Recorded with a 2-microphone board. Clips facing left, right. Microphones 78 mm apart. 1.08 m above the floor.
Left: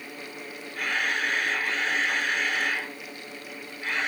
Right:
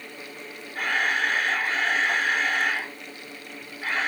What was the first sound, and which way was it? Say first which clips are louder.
A camera shutter: right 3 dB; 45° right (ahead or behind).